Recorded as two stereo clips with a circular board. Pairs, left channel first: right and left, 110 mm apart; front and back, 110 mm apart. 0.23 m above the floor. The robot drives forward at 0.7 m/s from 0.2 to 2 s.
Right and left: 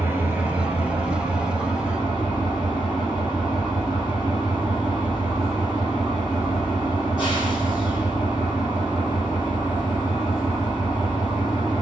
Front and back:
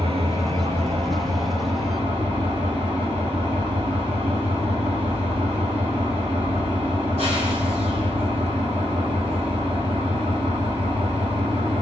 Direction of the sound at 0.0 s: 160° left.